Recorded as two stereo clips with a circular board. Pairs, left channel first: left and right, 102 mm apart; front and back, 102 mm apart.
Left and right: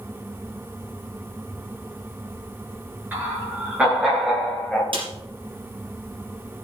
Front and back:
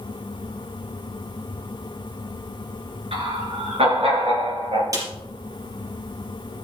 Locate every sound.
3.1 s laughter: 165° right, 6.5 m; by 4.8 s 175° left, 7 m
4.9 s a snare drum: 125° right, 4.5 m